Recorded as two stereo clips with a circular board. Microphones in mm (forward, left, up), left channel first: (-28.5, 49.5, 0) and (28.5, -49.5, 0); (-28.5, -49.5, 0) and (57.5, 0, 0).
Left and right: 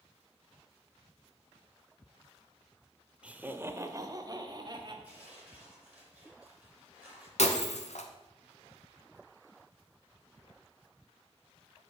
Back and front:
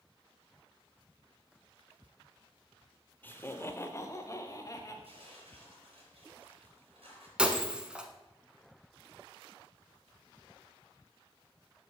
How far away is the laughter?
About 0.8 m.